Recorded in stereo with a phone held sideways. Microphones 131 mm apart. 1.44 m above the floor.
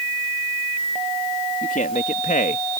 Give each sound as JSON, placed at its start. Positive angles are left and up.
{"t": 1.6, "sound": "a man speaking", "side_deg": 75}